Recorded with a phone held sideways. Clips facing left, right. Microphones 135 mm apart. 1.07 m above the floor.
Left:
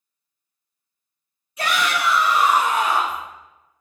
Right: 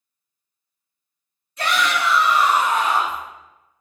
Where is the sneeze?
I don't hear a sneeze.